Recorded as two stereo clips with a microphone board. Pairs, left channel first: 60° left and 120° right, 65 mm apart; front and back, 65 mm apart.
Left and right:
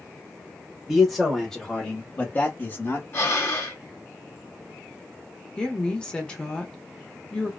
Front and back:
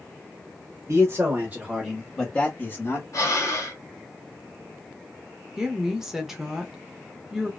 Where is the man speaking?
160° left, 1.1 m; by 3.0 s 20° left, 1.2 m.